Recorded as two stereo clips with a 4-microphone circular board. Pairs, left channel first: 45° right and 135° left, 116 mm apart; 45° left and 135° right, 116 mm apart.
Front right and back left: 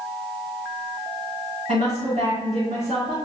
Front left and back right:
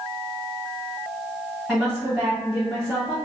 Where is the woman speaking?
140° left, 2 m.